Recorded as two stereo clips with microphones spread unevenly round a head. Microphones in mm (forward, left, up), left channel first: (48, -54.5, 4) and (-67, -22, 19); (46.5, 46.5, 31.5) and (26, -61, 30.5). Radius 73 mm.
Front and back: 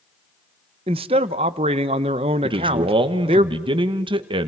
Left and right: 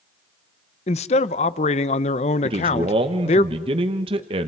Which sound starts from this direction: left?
A man speaking, at 0.9 s.